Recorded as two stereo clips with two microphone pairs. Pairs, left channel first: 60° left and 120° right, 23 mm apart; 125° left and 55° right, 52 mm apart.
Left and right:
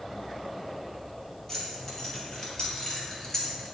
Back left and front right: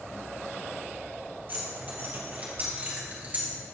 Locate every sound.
1.5 s keys jangling: 5° right, 3 m; by 3.5 s straight ahead, 2.0 m